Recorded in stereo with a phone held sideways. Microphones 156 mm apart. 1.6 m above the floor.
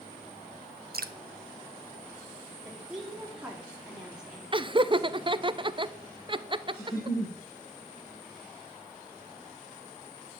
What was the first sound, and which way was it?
Dripping, 80° right.